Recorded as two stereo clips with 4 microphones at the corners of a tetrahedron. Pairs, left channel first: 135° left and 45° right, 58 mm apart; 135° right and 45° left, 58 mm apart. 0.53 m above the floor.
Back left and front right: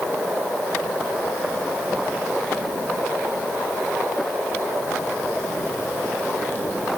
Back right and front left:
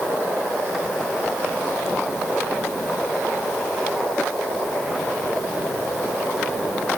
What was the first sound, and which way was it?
Only background noise.